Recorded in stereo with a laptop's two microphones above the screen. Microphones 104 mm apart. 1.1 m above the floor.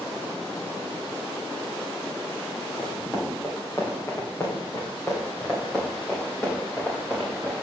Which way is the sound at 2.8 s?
35° left (ahead or behind).